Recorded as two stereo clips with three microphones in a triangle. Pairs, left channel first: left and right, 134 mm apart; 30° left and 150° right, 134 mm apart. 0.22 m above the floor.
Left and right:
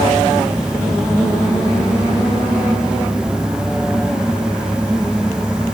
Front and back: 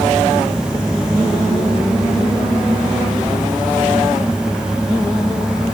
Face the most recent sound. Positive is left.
No sound to turn to.